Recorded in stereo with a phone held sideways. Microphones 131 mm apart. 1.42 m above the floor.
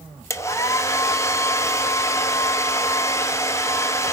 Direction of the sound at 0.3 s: 20° left (ahead or behind).